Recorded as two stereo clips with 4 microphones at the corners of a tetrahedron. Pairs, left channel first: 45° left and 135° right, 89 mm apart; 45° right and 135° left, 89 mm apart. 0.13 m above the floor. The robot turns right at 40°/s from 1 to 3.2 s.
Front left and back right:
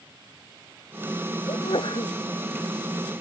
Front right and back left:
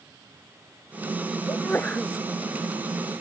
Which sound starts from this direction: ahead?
A sneeze, at 1.5 s.